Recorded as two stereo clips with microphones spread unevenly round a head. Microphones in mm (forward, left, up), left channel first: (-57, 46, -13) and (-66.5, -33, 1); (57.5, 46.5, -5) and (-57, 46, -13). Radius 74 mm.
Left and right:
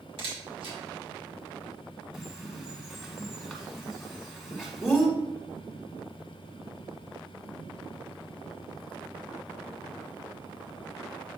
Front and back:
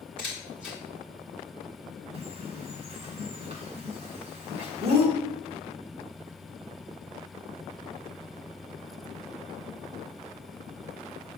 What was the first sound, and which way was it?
A camera shutter, 85° right.